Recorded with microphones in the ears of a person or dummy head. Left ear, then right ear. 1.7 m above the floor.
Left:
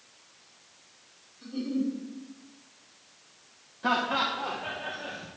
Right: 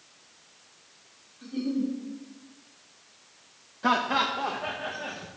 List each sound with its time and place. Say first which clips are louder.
1.4 s a giggle: right 1 dB; 5° right (ahead or behind), 1.3 m
3.8 s laughter: right 2 dB; 10° right (ahead or behind), 0.5 m